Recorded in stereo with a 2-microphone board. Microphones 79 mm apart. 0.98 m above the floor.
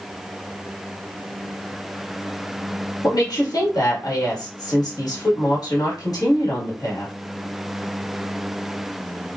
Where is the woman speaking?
55° left (ahead or behind), 1.4 m.